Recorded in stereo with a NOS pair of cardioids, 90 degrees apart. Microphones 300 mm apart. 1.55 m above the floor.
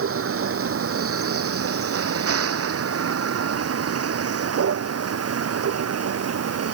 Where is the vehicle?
45° right; by 6.8 s 55° right.